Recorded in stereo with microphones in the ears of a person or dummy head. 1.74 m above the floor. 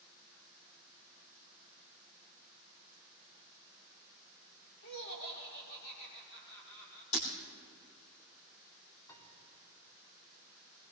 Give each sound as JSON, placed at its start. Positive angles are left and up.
{"t": 4.8, "sound": "laughter", "side_deg": 70, "distance_m": 5.5}
{"t": 7.1, "sound": "breaking glass", "side_deg": 40, "distance_m": 3.0}
{"t": 9.1, "sound": "a piano", "side_deg": 20, "distance_m": 4.0}